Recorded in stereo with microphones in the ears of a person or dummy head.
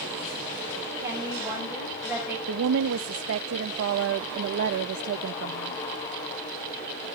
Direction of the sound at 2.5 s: 70° right (ahead or behind).